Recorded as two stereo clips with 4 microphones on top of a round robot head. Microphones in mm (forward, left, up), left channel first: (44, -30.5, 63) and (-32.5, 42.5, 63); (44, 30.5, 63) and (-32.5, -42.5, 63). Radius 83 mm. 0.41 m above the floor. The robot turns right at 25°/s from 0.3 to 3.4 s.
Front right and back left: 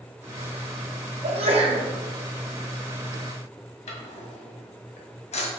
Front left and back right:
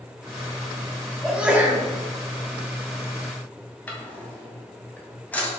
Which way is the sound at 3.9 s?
30° right.